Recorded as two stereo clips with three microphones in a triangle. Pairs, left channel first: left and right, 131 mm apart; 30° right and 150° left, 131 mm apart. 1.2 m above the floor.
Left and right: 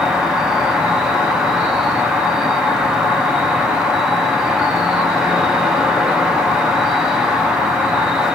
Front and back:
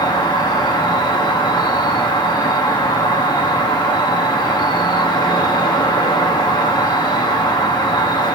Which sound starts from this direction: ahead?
An insect, at 0.0 s.